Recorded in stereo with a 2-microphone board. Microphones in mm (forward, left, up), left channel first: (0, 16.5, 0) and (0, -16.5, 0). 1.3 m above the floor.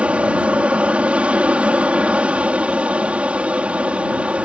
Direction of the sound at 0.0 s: 40° right (ahead or behind).